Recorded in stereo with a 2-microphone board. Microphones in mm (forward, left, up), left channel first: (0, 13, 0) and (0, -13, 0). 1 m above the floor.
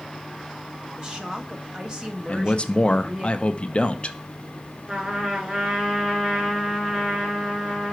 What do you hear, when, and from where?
1.0 s a woman speaking: 30° right (ahead or behind), 1.1 m
2.3 s a man speaking: 40° left (ahead or behind), 0.6 m
4.9 s a trumpet: 25° right (ahead or behind), 2 m